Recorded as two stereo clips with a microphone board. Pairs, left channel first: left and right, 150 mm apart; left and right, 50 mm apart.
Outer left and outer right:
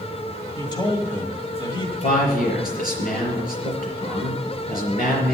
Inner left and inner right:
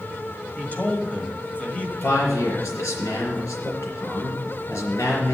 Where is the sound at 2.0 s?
75° left (ahead or behind), 4.5 m.